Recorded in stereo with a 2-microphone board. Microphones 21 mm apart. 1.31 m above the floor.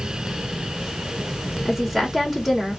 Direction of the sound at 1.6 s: Centre (ahead or behind).